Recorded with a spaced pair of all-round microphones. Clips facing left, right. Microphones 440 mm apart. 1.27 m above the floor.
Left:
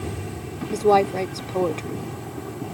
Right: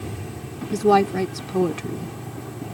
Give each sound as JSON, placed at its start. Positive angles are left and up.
{"t": 0.7, "sound": "a woman speaking", "side_deg": -30}